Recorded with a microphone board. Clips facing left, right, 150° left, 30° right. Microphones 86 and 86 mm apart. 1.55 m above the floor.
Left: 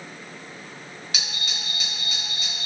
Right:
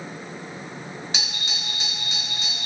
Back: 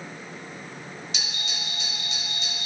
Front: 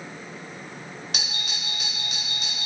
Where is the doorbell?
30° right, 1.1 m.